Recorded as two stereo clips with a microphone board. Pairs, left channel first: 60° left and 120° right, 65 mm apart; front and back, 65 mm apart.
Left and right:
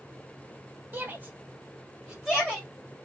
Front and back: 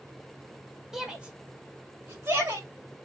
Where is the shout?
100° right, 1.4 m; by 2.7 s 150° left, 2 m.